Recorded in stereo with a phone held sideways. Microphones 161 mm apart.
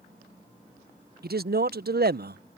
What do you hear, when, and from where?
1.2 s a man speaking: 70° right (ahead or behind)